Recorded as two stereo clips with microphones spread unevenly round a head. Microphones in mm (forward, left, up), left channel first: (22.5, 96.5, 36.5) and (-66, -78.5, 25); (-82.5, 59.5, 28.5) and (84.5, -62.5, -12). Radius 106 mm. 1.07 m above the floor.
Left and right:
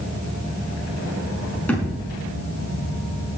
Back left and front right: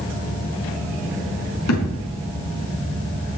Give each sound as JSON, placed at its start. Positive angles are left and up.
{"t": 1.7, "sound": "a thud", "azimuth_deg": 145, "distance_m": 5.0}